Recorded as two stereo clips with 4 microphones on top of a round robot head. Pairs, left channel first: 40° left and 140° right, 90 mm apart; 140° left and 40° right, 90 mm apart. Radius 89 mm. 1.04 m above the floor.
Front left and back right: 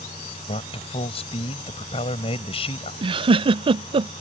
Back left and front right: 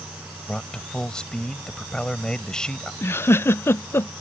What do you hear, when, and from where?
0.5 s a man speaking: 60° left
3.0 s a giggle: 155° right